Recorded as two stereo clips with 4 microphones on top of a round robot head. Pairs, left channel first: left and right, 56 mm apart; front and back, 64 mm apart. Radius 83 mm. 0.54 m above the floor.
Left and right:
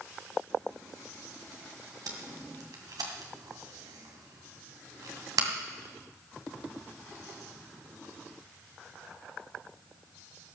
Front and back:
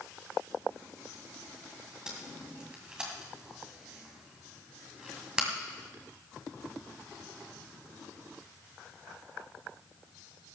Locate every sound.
2.1 s tape being pulled: 100° right, 2 m